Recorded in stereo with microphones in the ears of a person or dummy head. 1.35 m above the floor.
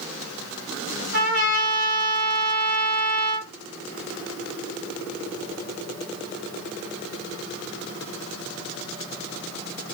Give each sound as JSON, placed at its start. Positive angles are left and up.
{"t": 1.1, "sound": "a trumpet", "side_deg": -55, "distance_m": 1.6}